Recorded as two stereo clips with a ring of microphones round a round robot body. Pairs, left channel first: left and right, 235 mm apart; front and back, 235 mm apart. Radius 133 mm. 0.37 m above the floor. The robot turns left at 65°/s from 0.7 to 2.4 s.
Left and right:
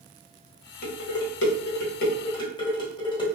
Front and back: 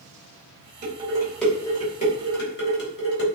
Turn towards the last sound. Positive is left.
turn(degrees=25)